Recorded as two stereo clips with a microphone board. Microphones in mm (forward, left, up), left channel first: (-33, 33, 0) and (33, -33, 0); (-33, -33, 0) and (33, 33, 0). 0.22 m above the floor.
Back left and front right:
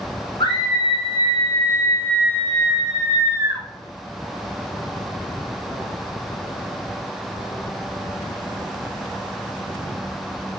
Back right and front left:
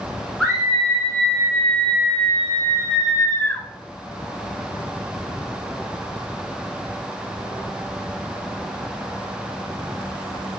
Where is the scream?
135° left, 3 m; by 3.6 s 70° right, 1.6 m.